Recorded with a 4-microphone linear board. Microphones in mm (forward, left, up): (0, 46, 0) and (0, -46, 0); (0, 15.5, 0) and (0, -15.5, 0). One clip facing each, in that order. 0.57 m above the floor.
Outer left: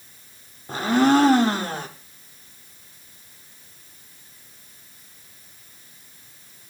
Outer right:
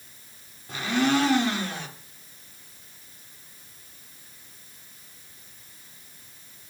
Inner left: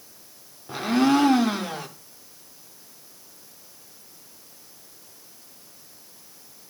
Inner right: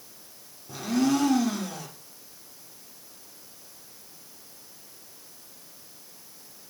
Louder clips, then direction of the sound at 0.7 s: Outer left 6 dB, inner left 4 dB; 40° left (ahead or behind).